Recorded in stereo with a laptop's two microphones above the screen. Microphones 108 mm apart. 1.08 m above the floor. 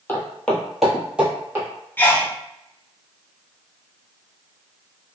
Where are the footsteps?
20° left (ahead or behind), 1.2 m; by 1.7 s 20° right (ahead or behind), 1.4 m.